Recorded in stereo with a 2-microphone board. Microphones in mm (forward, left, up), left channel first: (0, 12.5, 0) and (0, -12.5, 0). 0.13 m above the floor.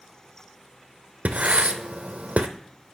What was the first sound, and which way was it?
Writing, 80° right.